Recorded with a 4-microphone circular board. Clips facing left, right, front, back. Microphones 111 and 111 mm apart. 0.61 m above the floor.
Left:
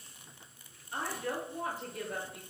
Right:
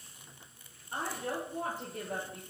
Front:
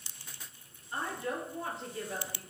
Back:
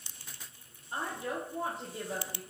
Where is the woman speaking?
130° right, 1.7 m.